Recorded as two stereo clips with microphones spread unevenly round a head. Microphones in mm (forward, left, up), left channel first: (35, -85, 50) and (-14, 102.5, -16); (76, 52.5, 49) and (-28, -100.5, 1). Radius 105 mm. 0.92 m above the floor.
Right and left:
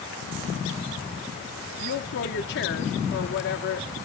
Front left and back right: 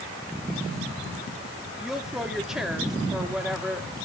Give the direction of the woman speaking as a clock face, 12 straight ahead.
1 o'clock.